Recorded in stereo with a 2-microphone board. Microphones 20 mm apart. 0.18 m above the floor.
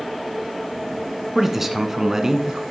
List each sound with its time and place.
1.4 s a man speaking: 15° right (ahead or behind), 1.5 m; by 2.6 s 35° right (ahead or behind), 1.4 m